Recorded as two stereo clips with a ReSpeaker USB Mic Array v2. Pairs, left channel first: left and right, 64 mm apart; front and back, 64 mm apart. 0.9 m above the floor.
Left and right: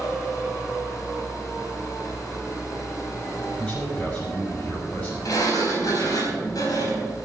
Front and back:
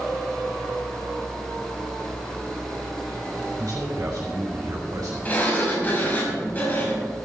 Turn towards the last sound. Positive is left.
turn(degrees=65)